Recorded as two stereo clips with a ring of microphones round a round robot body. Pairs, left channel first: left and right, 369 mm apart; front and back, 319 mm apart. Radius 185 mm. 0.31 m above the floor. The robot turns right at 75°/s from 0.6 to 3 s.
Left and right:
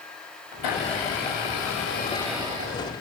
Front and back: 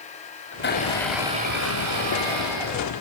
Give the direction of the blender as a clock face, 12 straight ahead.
10 o'clock.